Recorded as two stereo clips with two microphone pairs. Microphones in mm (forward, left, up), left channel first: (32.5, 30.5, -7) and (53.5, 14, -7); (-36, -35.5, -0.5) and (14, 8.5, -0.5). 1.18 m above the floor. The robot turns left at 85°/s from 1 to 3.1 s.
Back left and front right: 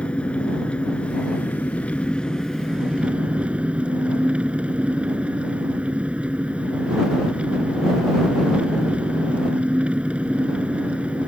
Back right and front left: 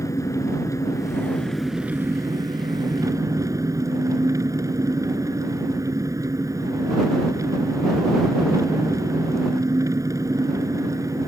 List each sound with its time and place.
0.0 s an engine running: 175° right; by 11.3 s 5° left